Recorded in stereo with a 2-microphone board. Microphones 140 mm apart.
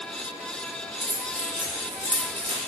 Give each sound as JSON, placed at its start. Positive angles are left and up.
{"t": 1.0, "sound": "keys jangling", "side_deg": -40, "distance_m": 1.5}